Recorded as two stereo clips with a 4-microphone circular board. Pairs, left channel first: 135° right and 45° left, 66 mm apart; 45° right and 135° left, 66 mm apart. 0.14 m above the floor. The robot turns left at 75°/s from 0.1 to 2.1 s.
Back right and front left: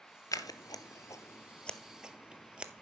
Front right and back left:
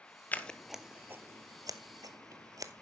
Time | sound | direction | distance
0.3 | scissors | 105° right | 0.6 m